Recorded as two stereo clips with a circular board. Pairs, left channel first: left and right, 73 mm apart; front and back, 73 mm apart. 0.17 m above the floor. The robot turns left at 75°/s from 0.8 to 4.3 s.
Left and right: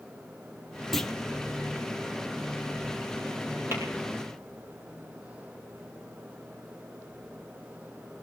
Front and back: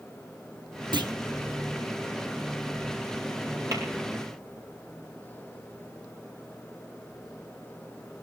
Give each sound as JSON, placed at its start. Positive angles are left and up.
{"t": 0.9, "sound": "a clunk", "azimuth_deg": 180, "distance_m": 1.0}
{"t": 3.7, "sound": "tapping", "azimuth_deg": -140, "distance_m": 4.0}